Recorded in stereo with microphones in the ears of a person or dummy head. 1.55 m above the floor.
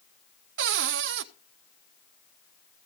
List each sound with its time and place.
0.6 s a cupboard door: 60° right (ahead or behind), 0.5 m